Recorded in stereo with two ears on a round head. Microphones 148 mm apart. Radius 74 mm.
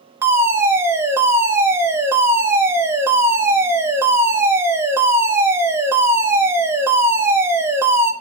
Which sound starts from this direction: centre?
A fire alarm, at 0.2 s.